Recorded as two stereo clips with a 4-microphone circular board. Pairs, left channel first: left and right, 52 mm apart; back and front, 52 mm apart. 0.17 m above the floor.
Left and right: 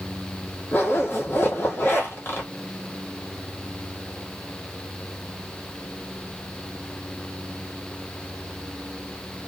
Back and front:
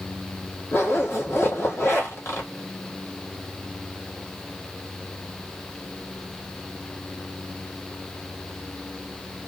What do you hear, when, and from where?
0.7 s a zipper: 140° left, 1.5 m